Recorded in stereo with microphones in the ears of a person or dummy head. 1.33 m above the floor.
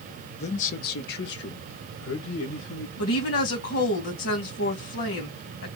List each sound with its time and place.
0.4 s a man speaking: 35° left (ahead or behind), 0.9 m; by 2.9 s 75° left (ahead or behind), 2.0 m
3.0 s a woman speaking: 75° left (ahead or behind), 2.0 m